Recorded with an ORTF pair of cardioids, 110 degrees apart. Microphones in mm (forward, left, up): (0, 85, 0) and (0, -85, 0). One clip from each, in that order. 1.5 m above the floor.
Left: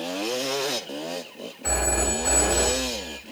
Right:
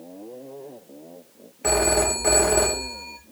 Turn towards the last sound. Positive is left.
turn(degrees=-40)